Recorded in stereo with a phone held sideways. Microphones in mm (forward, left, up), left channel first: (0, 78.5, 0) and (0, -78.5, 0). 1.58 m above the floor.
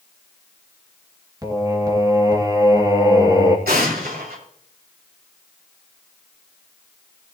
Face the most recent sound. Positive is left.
turn(degrees=-75)  # may be behind; listen again after turning